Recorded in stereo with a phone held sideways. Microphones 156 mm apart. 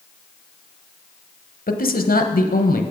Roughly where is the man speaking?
Left.